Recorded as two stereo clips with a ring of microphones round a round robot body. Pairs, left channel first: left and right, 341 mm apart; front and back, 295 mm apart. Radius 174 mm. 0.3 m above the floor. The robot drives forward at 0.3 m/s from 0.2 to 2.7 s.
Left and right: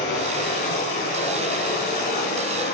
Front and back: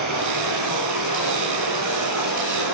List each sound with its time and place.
0.0 s running water: 155° left, 8 m